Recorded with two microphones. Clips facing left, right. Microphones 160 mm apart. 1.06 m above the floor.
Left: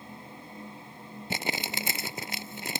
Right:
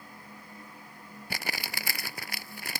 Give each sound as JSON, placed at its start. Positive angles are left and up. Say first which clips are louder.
{"t": 1.3, "sound": "crumpling", "louder": "left 5 dB", "side_deg": 25}